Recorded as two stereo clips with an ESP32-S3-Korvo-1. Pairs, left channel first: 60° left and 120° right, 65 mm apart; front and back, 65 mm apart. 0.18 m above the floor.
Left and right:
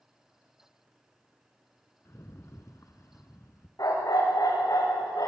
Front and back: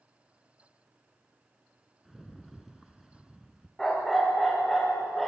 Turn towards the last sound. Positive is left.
turn(degrees=85)